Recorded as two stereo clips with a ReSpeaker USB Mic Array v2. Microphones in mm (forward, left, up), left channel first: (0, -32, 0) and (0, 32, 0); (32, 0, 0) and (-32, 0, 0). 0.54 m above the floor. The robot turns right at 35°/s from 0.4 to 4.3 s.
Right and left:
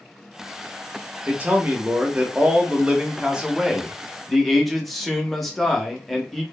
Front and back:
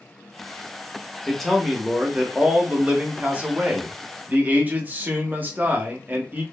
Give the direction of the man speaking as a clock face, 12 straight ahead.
9 o'clock.